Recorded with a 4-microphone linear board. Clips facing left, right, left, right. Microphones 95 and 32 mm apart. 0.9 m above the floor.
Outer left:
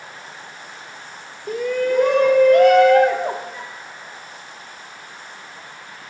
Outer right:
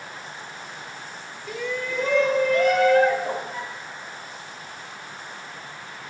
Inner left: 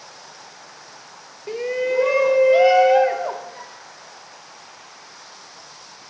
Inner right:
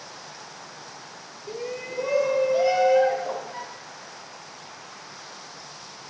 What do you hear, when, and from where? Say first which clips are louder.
1.5 s a shout: outer left 9 dB, inner left 11 dB; 45° left (ahead or behind), 0.7 m; by 3.4 s 75° left (ahead or behind), 1.7 m
3.5 s a flute: outer right 1 dB, inner right 2 dB; 60° right (ahead or behind), 6.5 m